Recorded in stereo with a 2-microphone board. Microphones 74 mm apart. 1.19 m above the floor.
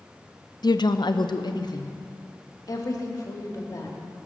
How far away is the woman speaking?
About 0.6 m.